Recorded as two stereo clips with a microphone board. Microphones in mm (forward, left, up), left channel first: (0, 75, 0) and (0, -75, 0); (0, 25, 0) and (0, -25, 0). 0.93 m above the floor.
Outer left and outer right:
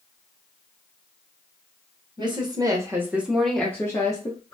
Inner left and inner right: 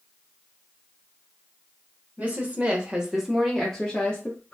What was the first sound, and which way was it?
A woman speaking, 30° right (ahead or behind).